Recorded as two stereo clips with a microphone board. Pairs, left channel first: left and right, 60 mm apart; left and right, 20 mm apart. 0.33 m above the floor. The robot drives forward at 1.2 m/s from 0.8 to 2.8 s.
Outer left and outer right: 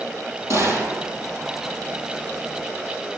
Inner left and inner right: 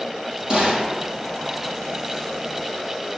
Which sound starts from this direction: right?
A gunshot, at 0.5 s.